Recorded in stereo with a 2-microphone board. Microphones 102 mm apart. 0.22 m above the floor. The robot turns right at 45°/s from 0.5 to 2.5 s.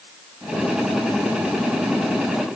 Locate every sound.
Only background noise.